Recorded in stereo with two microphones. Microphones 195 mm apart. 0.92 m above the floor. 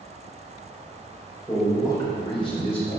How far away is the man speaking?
About 4 m.